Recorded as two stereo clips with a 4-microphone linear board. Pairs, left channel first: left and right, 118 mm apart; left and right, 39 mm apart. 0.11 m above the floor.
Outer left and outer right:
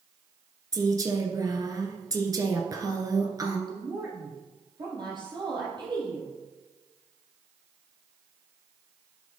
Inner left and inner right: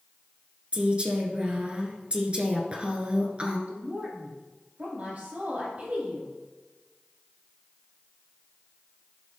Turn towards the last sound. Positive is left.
turn(degrees=-40)  # may be behind; listen again after turning